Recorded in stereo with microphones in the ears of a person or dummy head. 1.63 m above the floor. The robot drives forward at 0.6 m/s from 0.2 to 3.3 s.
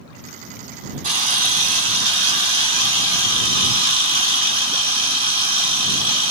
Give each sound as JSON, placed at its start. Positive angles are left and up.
{"t": 1.0, "sound": "a camera shutter", "side_deg": -45, "distance_m": 2.0}